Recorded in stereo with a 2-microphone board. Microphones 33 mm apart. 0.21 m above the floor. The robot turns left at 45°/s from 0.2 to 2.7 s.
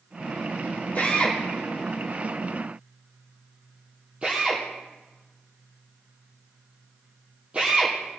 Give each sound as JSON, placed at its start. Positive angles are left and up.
{"t": 0.9, "sound": "a drill", "side_deg": 50, "distance_m": 3.5}